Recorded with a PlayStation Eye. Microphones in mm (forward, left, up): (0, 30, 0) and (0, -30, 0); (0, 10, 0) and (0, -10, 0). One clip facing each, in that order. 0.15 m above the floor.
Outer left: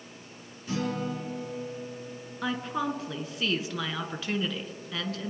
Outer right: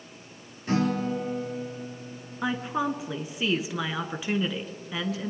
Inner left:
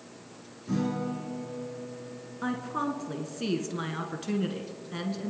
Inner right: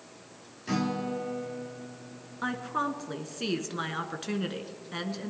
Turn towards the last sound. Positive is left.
turn(degrees=-15)  # may be behind; listen again after turning